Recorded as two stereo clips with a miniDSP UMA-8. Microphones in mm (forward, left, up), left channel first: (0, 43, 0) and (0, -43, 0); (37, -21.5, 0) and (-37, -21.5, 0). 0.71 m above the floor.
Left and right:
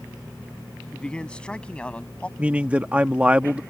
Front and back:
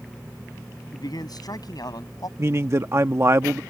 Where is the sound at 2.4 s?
155° right.